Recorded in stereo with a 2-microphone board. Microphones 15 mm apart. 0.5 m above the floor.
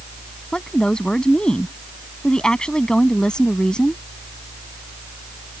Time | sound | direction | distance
0.5 | a woman speaking | 70° left (ahead or behind) | ?